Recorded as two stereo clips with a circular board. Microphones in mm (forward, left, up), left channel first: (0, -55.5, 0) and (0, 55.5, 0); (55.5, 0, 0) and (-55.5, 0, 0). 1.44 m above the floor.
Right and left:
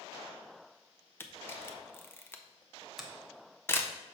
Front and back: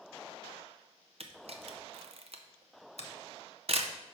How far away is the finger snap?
About 0.9 m.